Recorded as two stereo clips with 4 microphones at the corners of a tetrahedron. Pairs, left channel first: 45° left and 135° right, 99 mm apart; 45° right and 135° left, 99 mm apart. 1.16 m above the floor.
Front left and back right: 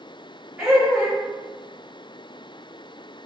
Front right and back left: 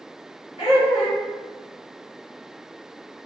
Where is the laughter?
50° right, 1.2 m.